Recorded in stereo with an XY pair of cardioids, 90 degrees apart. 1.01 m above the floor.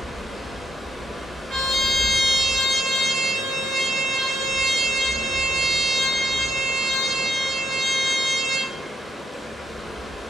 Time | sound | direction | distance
0.0 | running water | 5° left | 0.7 m
1.5 | a trumpet | 65° right | 1.8 m